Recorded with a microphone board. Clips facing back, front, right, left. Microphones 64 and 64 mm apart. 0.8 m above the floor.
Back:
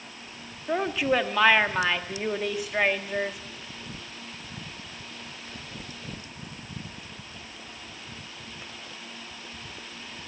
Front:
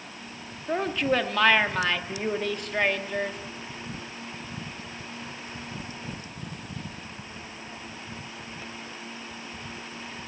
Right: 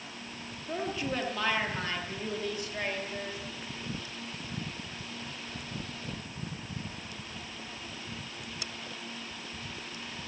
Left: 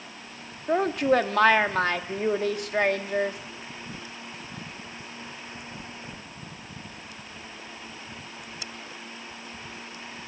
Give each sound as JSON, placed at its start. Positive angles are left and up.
{"t": 0.7, "sound": "a woman speaking", "azimuth_deg": 95, "distance_m": 1.5}